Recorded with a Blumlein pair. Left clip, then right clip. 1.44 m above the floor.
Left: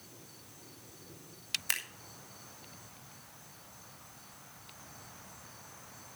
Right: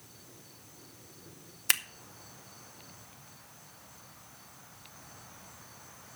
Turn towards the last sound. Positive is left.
turn(degrees=-70)